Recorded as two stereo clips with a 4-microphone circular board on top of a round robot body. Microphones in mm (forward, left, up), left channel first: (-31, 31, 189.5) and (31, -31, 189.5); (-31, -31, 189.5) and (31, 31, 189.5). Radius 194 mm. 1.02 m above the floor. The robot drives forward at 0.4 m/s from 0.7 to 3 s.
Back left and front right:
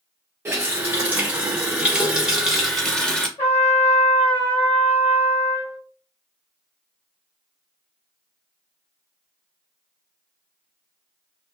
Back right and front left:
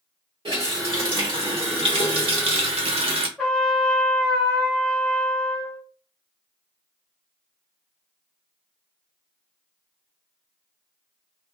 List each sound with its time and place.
0.5 s a running tap: 20° left, 1.4 m; by 3.3 s 55° left, 0.6 m
3.4 s a trumpet: 145° left, 0.7 m